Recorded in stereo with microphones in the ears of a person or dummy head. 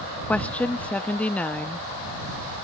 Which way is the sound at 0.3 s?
5° left (ahead or behind).